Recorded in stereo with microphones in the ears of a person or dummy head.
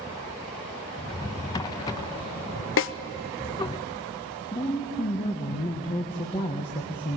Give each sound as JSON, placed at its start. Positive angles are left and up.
{"t": 1.0, "sound": "a drawer", "side_deg": 20, "distance_m": 0.5}
{"t": 2.8, "sound": "a snare drum", "side_deg": 60, "distance_m": 0.7}
{"t": 4.5, "sound": "a woman speaking", "side_deg": 25, "distance_m": 1.5}